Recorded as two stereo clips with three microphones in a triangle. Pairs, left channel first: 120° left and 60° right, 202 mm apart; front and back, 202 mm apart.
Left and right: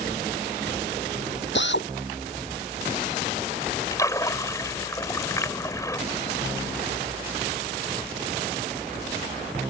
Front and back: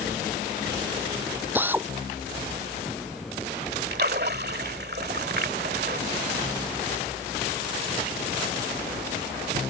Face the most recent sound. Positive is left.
turn(degrees=-170)